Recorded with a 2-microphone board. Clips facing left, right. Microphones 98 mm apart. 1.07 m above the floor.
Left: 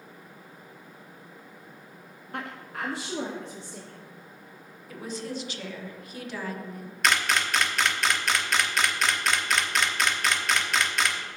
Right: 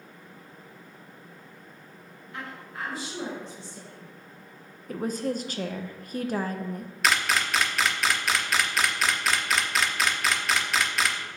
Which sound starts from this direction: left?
A woman speaking, at 2.3 s.